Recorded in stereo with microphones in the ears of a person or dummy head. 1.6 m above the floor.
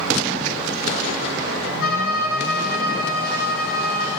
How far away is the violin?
About 4.5 m.